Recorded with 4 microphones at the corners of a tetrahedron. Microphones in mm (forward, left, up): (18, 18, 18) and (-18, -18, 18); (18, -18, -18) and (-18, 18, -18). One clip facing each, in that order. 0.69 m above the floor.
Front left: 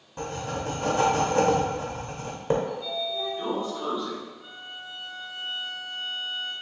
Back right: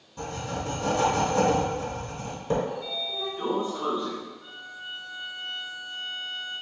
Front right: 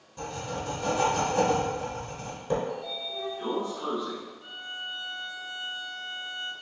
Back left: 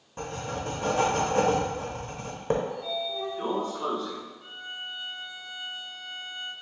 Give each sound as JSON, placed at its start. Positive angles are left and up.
{"t": 0.2, "sound": "writing", "azimuth_deg": 90, "distance_m": 0.8}
{"t": 2.7, "sound": "a sliding door", "azimuth_deg": 155, "distance_m": 1.2}
{"t": 4.4, "sound": "a violin", "azimuth_deg": 40, "distance_m": 1.0}